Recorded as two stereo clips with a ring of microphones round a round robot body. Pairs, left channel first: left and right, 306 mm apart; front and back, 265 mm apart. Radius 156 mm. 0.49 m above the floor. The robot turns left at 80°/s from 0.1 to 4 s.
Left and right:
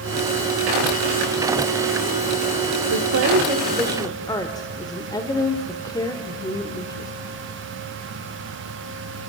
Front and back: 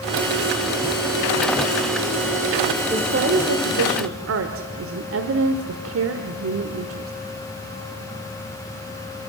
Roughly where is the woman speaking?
Right.